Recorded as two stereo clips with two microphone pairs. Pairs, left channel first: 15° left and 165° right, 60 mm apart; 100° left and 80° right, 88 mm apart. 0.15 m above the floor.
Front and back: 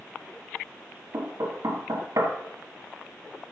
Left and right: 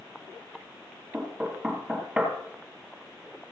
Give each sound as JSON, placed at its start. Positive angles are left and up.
{"t": 1.1, "sound": "knocking", "azimuth_deg": -160, "distance_m": 2.0}